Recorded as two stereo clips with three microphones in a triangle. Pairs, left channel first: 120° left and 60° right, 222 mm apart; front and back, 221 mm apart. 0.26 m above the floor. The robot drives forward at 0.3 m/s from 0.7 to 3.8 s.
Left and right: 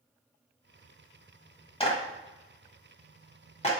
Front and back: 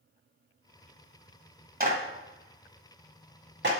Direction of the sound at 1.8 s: 170° left.